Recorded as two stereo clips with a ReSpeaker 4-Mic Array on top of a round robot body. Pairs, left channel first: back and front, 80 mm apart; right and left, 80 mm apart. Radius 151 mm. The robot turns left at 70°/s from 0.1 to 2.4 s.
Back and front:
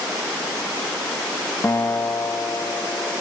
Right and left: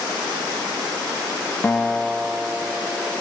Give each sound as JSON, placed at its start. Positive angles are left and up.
{"t": 1.6, "sound": "a guitar", "azimuth_deg": -150, "distance_m": 1.3}